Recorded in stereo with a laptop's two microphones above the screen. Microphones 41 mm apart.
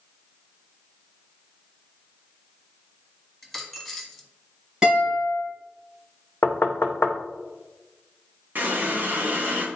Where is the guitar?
15° right (ahead or behind), 3 m.